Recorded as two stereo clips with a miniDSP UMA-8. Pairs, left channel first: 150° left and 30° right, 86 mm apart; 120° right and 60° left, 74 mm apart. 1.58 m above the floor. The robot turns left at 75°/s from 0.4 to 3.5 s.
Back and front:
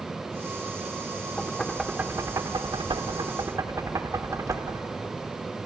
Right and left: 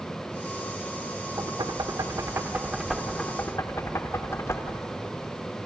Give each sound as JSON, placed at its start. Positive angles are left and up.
{"t": 1.4, "sound": "knocking", "azimuth_deg": 85, "distance_m": 1.1}